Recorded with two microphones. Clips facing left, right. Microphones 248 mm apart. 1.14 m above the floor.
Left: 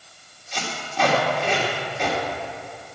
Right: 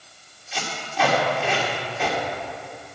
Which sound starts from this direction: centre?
Tape being pulled, at 0.5 s.